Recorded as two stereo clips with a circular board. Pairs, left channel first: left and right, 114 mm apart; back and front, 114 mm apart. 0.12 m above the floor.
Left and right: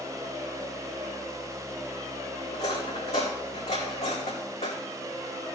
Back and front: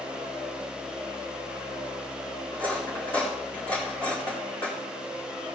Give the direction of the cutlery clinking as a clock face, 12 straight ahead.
8 o'clock.